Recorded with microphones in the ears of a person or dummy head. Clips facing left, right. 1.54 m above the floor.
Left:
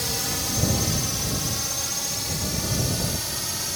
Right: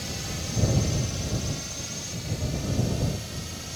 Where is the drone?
65° left (ahead or behind).